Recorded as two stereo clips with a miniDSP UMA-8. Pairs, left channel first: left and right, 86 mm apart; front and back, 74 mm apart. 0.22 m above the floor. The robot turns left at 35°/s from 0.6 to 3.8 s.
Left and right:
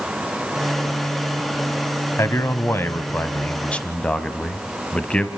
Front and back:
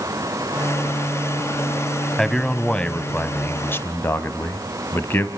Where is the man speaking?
80° left, 1.1 m; by 5.3 s 25° left, 1.1 m.